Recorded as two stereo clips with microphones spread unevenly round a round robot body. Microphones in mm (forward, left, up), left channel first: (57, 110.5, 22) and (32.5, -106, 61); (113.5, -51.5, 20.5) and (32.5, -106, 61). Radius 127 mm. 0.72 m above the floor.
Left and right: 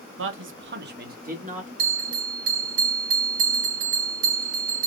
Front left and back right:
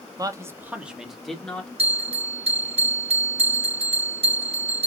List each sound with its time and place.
0.2 s a man speaking: 85° right, 1.2 m; by 1.7 s 35° right, 2 m
1.8 s a bell: 125° right, 2.0 m